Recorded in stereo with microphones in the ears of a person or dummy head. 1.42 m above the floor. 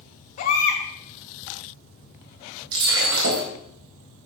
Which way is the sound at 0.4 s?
45° left (ahead or behind).